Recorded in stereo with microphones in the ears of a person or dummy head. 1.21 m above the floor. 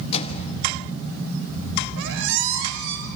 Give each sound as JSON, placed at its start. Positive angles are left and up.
{"t": 0.1, "sound": "a microwave", "side_deg": 35, "distance_m": 1.3}
{"t": 2.0, "sound": "a squeak", "side_deg": -70, "distance_m": 2.5}